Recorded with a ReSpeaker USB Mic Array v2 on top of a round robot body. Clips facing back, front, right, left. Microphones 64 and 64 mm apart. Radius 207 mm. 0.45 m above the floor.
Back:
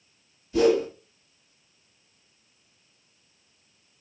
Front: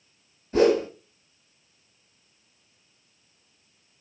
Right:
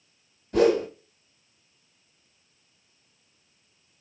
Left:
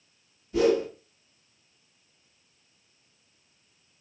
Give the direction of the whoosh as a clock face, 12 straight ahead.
2 o'clock.